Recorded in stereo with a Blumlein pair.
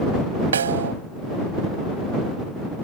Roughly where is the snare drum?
Ahead right.